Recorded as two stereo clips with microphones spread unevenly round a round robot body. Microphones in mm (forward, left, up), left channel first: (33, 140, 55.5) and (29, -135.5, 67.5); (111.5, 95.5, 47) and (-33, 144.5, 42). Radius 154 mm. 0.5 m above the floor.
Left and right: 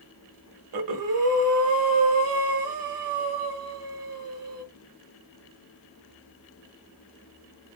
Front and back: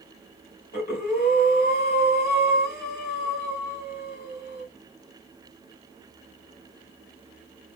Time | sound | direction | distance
0.7 | breathing | 55° right | 0.9 m